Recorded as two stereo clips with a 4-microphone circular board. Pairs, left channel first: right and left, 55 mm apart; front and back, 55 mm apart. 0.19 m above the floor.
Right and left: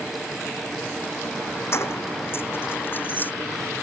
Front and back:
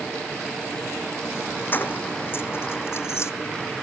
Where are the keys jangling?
55° right; by 3.3 s 35° right.